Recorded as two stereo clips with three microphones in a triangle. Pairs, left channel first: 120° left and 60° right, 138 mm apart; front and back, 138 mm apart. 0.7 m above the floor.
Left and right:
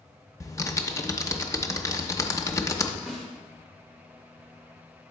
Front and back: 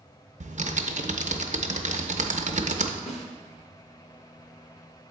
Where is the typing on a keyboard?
175° right, 0.5 m.